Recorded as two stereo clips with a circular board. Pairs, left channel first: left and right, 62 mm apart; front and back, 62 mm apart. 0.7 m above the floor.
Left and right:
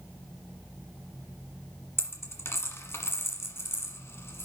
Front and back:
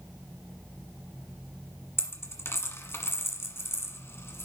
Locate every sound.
2.0 s a dropped coin: 45° left, 1.5 m